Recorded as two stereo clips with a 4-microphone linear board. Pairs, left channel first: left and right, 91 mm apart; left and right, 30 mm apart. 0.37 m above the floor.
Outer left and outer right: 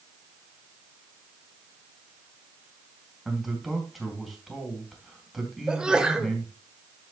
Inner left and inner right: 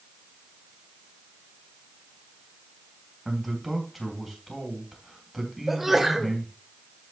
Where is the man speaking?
Centre (ahead or behind), 3.5 m.